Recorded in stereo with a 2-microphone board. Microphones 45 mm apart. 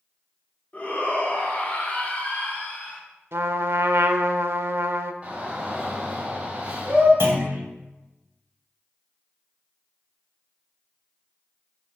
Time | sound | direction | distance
0.7 | a shout | 40° left (ahead or behind) | 3 m
3.3 | a trumpet | 70° right (ahead or behind) | 0.6 m
5.2 | a shout | 35° right (ahead or behind) | 3 m
7.2 | a clunk | 75° right (ahead or behind) | 1.8 m